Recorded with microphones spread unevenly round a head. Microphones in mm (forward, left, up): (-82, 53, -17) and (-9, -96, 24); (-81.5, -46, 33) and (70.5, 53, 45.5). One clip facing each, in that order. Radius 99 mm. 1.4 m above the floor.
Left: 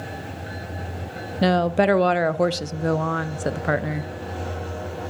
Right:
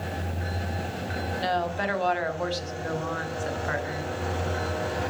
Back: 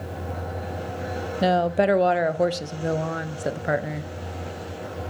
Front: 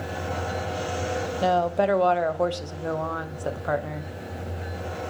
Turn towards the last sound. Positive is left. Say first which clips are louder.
# left 10 dB, back 2 dB
turn(degrees=140)